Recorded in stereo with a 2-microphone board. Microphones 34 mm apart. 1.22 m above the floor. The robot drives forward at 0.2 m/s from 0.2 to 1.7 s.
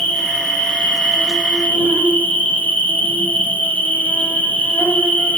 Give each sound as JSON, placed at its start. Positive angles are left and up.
{"t": 0.0, "sound": "an insect", "side_deg": 60, "distance_m": 0.8}